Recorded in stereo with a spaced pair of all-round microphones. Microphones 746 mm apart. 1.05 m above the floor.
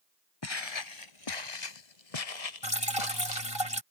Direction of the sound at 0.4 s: 35° left (ahead or behind).